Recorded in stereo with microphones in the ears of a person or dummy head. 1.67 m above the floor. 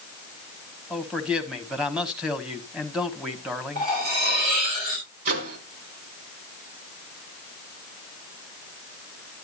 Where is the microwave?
50° right (ahead or behind), 2.5 m.